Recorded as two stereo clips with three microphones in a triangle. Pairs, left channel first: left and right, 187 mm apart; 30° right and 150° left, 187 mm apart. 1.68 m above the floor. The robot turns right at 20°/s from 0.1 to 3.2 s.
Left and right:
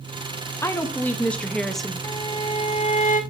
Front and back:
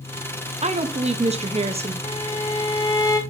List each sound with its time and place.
0.6 s a woman speaking: 155° left, 0.6 m; by 1.9 s straight behind, 0.6 m
2.0 s a violin: 20° left, 0.8 m; by 3.2 s 40° left, 0.8 m